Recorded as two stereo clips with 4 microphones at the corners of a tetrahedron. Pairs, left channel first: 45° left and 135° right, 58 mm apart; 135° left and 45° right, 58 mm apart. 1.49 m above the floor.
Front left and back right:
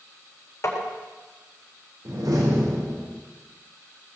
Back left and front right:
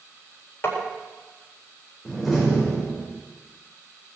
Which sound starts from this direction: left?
Tapping, at 0.6 s.